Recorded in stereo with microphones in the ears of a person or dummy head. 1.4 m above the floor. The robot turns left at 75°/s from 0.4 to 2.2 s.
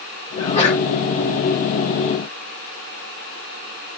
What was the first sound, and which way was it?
A sneeze, 160° left.